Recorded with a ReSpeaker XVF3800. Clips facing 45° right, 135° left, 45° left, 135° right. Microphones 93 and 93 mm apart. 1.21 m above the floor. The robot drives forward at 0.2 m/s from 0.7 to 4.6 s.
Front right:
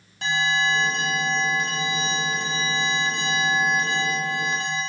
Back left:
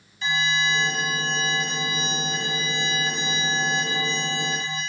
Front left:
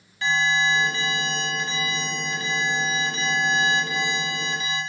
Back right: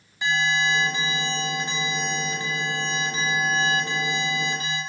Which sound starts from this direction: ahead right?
An alarm, at 0.2 s.